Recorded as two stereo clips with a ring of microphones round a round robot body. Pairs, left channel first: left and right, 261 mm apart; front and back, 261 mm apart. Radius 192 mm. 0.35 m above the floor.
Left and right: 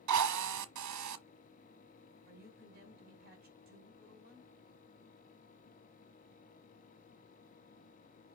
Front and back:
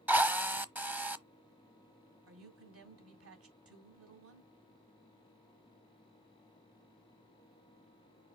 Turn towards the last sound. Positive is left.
turn(degrees=-150)